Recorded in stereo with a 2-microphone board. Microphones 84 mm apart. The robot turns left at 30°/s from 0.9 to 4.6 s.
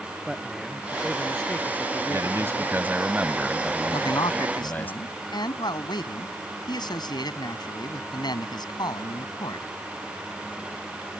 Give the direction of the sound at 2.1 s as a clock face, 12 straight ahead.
4 o'clock.